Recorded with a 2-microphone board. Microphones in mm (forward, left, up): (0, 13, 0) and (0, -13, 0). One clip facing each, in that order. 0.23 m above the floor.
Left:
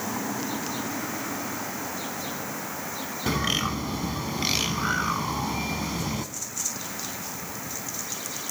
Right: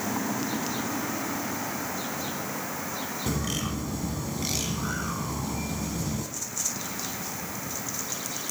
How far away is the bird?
About 1.0 m.